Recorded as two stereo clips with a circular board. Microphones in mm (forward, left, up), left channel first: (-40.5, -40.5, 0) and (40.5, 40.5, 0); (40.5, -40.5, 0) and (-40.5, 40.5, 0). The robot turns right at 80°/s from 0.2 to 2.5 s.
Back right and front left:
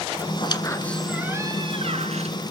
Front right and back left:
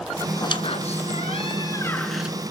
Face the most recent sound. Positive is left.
turn(degrees=70)